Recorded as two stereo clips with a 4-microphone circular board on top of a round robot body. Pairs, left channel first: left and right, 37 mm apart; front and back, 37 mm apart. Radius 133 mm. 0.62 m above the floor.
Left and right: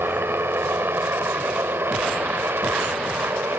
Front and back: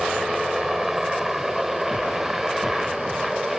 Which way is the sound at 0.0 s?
95° right.